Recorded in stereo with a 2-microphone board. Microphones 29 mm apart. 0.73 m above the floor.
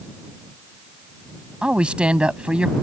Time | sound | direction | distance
1.6 | a woman speaking | 45° right (ahead or behind) | ?